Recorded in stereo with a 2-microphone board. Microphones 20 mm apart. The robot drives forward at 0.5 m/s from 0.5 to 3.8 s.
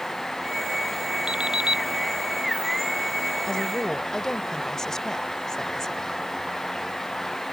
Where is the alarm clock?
50° right (ahead or behind); by 1.8 s 40° right (ahead or behind).